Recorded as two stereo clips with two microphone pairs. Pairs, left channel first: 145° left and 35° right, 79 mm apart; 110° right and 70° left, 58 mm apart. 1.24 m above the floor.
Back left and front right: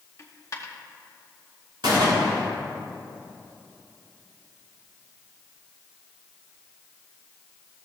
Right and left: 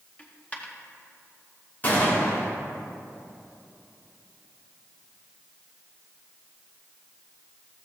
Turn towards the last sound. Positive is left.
turn(degrees=-50)